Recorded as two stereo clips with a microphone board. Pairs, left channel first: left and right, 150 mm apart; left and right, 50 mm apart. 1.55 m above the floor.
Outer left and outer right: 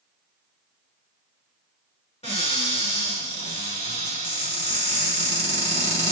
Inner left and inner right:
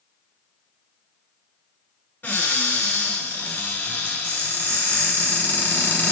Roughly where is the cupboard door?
Left.